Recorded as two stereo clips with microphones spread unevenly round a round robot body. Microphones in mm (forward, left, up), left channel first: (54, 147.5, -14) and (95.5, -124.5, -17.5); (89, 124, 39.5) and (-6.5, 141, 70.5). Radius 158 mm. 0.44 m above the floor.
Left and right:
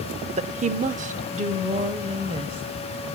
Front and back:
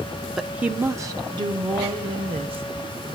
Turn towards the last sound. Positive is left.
turn(degrees=-150)